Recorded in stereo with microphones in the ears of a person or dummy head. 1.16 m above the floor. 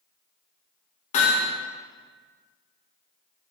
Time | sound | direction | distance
1.1 | hammering | 40° left (ahead or behind) | 2 m